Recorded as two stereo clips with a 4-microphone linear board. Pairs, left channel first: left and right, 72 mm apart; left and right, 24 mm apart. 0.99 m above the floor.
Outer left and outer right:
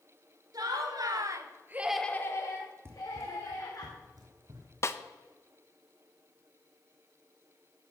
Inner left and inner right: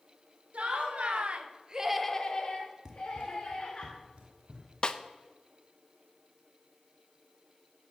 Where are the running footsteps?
35° right (ahead or behind), 1.2 m; by 4.7 s 60° right (ahead or behind), 3 m.